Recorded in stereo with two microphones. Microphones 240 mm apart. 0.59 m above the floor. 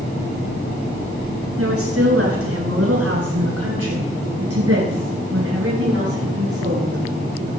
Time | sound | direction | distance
1.6 | a woman speaking | 70° right (ahead or behind) | 9 m